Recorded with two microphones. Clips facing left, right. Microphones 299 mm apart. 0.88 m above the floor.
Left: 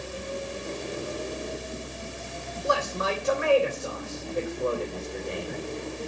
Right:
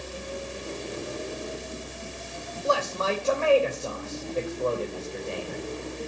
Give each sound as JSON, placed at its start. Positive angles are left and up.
{"t": 2.6, "sound": "a man speaking", "side_deg": 15, "distance_m": 2.5}